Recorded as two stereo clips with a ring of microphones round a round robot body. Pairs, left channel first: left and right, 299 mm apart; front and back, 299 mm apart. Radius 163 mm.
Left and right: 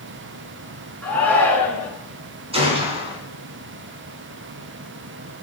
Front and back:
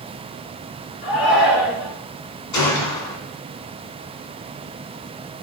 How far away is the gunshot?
About 3.5 m.